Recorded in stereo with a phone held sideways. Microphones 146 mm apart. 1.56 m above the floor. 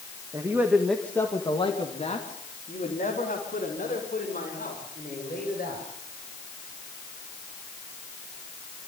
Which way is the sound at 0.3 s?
25° right (ahead or behind).